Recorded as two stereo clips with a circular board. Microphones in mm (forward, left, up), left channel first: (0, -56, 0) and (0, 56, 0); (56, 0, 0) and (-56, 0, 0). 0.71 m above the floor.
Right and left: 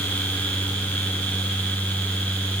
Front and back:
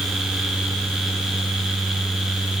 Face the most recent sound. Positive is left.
No sound to turn to.